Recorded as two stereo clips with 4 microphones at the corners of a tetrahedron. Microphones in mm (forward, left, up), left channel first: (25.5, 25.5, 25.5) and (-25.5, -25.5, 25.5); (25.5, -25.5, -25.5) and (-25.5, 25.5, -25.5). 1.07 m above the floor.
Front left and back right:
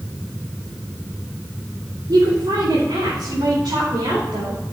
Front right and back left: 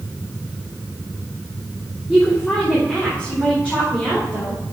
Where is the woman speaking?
125° right, 2.5 m; by 4.6 s 110° right, 5 m.